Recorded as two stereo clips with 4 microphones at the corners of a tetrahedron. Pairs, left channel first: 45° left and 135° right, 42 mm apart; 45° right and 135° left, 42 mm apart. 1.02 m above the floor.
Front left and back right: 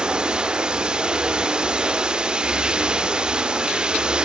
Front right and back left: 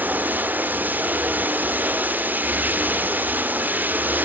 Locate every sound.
0.0 s running water: 165° left, 0.8 m